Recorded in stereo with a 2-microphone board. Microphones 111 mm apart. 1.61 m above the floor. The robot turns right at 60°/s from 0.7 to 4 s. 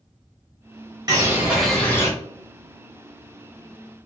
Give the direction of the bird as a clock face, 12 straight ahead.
1 o'clock.